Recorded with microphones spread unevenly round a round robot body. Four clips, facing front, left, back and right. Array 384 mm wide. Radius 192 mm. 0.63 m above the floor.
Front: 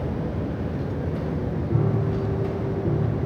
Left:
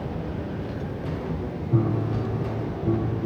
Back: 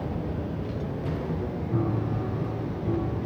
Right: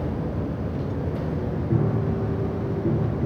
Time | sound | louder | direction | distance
1.7 | a piano | left 1 dB, front 3 dB | 65° right | 8 m